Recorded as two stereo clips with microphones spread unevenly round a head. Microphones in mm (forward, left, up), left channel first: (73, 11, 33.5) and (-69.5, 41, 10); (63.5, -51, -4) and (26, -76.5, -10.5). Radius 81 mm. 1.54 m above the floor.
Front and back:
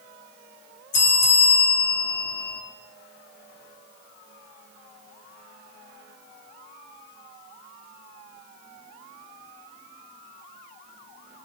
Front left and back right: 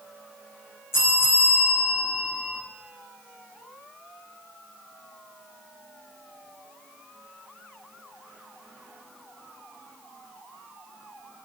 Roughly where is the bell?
Ahead.